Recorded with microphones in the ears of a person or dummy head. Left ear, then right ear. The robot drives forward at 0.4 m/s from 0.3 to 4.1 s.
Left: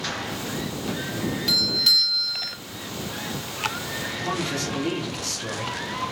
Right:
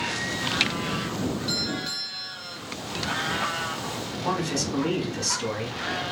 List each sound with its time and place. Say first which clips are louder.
1.5 s a doorbell: left 13 dB; 30° left (ahead or behind), 1.3 m; by 2.6 s 45° left (ahead or behind), 0.9 m
4.2 s a man speaking: right 2 dB; 85° right, 1.8 m